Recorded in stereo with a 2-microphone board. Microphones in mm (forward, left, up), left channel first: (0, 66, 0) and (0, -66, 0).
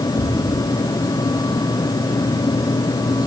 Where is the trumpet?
No trumpet in this recording.